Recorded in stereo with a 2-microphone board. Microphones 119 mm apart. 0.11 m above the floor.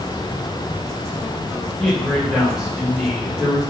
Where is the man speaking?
Centre (ahead or behind), 4.5 m; by 3.6 s 15° right (ahead or behind), 4.5 m.